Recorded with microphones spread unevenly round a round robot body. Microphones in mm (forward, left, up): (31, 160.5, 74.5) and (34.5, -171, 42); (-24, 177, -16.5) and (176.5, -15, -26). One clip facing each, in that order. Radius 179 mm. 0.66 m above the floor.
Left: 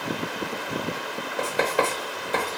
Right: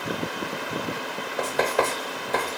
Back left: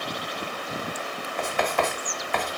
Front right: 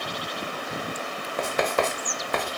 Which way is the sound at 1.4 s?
5° left.